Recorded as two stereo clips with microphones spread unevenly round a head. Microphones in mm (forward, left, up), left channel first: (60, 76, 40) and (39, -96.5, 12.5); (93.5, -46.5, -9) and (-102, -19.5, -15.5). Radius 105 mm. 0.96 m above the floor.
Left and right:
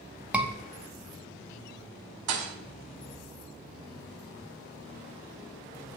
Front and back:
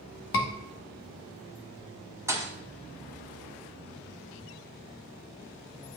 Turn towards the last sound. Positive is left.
turn(degrees=-110)